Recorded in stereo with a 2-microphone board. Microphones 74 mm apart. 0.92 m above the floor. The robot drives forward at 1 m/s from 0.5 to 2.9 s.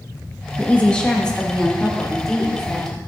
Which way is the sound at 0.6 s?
20° left (ahead or behind).